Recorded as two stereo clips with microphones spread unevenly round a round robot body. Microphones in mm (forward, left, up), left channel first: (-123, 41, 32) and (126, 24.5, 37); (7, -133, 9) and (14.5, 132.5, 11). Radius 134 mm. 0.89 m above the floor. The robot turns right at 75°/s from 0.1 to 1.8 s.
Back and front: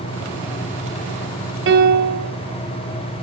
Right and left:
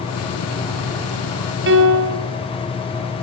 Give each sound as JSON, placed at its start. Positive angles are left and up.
{"t": 1.7, "sound": "a piano", "azimuth_deg": 40, "distance_m": 3.0}